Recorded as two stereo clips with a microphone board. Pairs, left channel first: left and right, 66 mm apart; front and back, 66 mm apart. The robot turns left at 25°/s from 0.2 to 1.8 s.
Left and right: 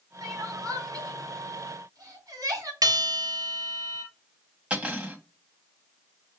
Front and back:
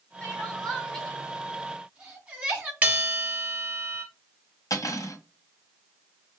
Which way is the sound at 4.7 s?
20° right.